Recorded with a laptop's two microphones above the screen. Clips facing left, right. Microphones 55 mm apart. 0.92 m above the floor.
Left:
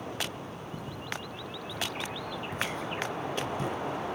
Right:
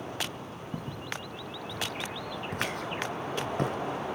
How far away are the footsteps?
About 2 m.